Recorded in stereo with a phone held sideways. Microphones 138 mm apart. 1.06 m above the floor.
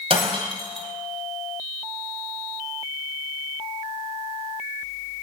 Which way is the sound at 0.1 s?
45° right (ahead or behind).